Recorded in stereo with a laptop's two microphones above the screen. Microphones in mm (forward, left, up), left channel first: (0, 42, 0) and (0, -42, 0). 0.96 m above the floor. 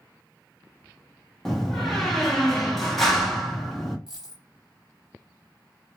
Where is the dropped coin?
5° right (ahead or behind), 1.8 m.